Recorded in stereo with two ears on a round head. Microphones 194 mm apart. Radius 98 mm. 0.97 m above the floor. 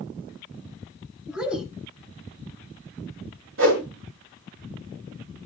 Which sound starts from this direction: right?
A whoosh, at 3.6 s.